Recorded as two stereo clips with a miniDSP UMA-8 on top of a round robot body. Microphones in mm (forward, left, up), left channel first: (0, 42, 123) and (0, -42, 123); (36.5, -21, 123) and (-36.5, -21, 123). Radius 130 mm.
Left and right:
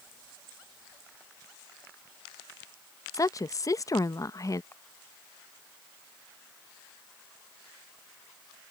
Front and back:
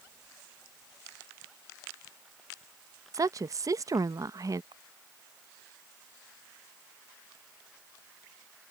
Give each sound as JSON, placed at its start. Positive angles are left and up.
{"t": 3.1, "sound": "a woman speaking", "azimuth_deg": 140}
{"t": 4.7, "sound": "a camera shutter", "azimuth_deg": 155}